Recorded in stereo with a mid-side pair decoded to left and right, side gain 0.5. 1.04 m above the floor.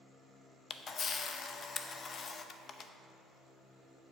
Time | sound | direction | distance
0.7 | a camera shutter | 45° left | 0.6 m